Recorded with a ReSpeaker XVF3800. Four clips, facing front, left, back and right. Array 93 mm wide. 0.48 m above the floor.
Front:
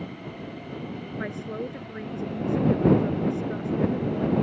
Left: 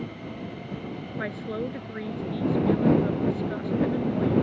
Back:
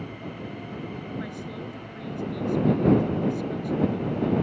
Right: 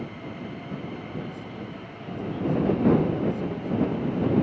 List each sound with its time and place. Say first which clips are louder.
1.2 s a woman speaking: left 5 dB, front 3 dB; 60° left